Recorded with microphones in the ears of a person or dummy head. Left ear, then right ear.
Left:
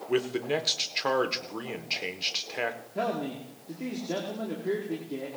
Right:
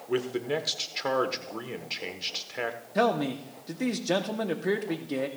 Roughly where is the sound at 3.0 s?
Right.